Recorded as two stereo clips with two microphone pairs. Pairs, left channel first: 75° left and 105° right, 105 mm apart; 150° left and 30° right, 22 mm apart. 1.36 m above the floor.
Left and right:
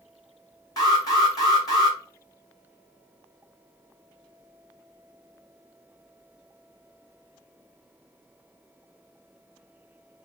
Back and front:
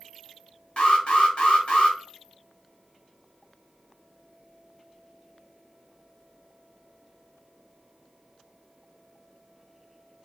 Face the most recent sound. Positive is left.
turn(degrees=125)